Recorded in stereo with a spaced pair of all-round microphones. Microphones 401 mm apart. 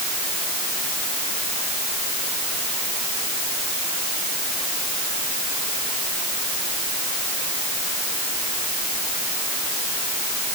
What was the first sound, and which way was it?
Only background noise.